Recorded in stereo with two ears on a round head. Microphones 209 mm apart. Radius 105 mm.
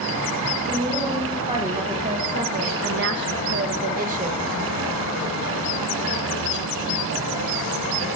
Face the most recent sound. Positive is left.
turn(degrees=-30)  # may be behind; listen again after turning